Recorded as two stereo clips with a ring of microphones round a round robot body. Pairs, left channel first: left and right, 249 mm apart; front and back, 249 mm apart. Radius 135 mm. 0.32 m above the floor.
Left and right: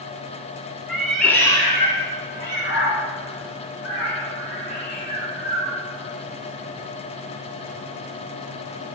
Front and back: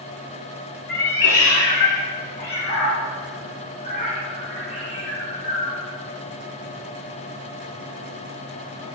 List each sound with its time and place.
0.9 s a cat meowing: 5° right, 1.5 m; by 5.8 s 75° left, 3.5 m